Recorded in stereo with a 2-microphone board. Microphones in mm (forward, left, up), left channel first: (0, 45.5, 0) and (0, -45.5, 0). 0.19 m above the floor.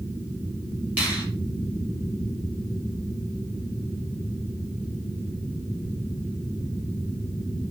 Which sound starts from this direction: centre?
A finger snap, at 1.0 s.